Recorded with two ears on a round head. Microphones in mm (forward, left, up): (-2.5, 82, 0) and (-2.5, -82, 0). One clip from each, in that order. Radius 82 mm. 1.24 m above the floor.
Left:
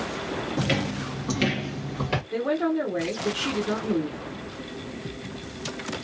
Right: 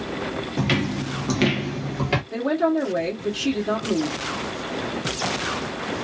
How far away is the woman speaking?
About 1.1 m.